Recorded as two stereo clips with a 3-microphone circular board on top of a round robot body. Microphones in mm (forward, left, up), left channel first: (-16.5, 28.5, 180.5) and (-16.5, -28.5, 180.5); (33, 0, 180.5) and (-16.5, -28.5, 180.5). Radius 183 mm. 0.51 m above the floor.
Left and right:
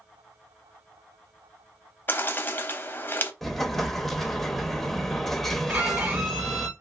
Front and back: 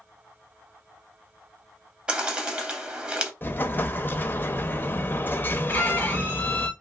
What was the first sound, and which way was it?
A bird, 140° left.